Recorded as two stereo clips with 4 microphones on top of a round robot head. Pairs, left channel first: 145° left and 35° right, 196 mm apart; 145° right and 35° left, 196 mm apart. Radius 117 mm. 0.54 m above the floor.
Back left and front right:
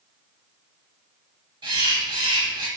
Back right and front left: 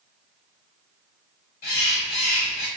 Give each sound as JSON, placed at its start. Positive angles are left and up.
{"t": 1.6, "sound": "a bird", "azimuth_deg": -100, "distance_m": 0.6}